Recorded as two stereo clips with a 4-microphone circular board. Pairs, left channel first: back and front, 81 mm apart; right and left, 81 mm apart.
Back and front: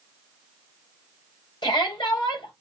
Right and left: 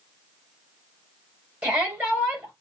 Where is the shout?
160° left, 4 m.